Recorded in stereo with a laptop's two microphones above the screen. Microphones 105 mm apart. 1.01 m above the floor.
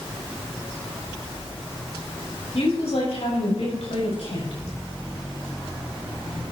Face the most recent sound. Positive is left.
turn(degrees=85)